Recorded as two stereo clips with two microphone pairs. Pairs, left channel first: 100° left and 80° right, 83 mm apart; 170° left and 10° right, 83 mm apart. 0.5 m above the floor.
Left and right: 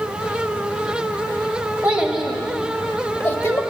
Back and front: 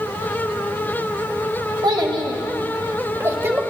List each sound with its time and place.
1.8 s a child speaking: 5° right, 1.6 m; by 3.6 s 50° left, 1.4 m